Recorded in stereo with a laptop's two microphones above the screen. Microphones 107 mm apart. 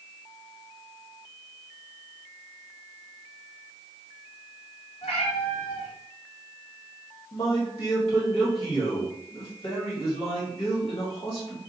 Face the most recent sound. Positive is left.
turn(degrees=70)  # may be behind; listen again after turning